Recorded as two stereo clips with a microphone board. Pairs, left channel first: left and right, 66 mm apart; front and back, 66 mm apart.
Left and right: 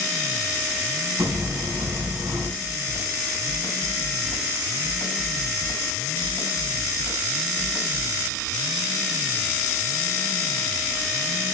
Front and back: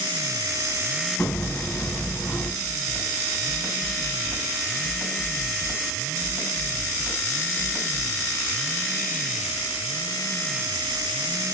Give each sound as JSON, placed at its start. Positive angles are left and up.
{"t": 1.2, "sound": "hammering", "azimuth_deg": -65, "distance_m": 3.0}
{"t": 2.6, "sound": "a snare drum", "azimuth_deg": 110, "distance_m": 2.5}